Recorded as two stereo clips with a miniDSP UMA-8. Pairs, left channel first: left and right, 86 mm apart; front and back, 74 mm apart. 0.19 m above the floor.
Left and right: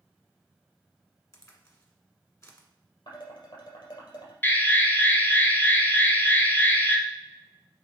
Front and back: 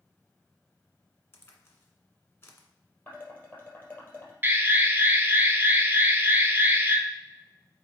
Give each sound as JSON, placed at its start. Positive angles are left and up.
{"t": 1.3, "sound": "a crack", "azimuth_deg": 45, "distance_m": 1.7}
{"t": 3.1, "sound": "dishes clattering", "azimuth_deg": 65, "distance_m": 3.5}
{"t": 4.4, "sound": "an alarm", "azimuth_deg": 140, "distance_m": 1.2}